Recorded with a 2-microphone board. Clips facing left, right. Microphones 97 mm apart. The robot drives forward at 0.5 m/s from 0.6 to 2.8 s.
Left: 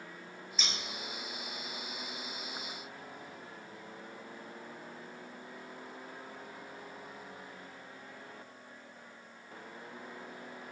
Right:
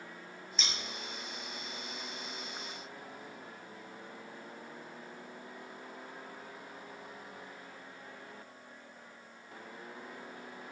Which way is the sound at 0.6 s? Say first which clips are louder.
Even; 5° left (ahead or behind).